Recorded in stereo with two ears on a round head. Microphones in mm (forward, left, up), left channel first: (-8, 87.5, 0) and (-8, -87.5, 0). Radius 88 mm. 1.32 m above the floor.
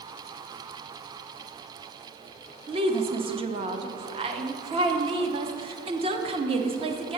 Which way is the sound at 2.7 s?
30° right (ahead or behind).